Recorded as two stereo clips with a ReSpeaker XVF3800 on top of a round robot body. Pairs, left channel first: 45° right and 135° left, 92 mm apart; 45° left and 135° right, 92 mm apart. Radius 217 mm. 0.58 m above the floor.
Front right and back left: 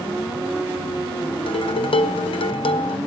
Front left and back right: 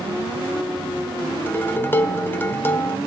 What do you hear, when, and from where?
1.5 s dishes clattering: 20° right, 1.1 m